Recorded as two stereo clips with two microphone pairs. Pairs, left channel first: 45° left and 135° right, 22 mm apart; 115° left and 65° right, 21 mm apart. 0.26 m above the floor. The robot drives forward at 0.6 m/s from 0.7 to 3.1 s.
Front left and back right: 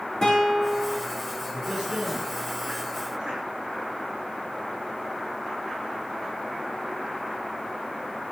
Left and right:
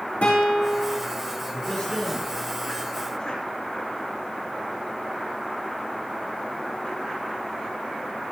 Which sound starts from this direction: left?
A guitar, at 0.2 s.